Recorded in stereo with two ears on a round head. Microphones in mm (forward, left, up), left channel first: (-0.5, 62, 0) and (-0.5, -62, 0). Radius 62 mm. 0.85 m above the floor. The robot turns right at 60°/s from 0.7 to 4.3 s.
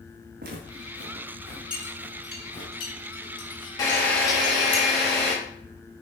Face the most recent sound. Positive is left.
turn(degrees=180)